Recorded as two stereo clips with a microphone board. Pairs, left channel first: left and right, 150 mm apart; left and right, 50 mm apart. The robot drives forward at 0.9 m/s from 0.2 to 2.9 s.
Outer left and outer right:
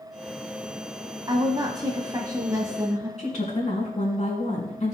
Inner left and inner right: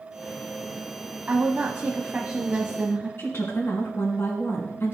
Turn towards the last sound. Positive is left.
turn(degrees=50)  # may be behind; listen again after turning